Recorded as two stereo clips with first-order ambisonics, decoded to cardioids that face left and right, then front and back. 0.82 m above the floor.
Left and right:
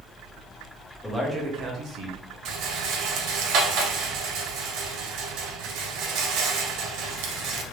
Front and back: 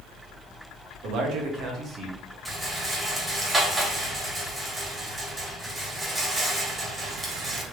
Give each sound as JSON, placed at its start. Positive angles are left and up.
{"t": 1.0, "sound": "a man speaking", "azimuth_deg": 175, "distance_m": 0.9}
{"t": 2.5, "sound": "a rattle", "azimuth_deg": -100, "distance_m": 0.8}